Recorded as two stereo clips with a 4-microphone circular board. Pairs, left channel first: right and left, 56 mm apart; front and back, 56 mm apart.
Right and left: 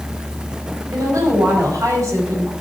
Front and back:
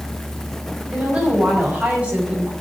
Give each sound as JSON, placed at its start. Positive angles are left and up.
{"t": 0.9, "sound": "a woman speaking", "azimuth_deg": 110, "distance_m": 5.5}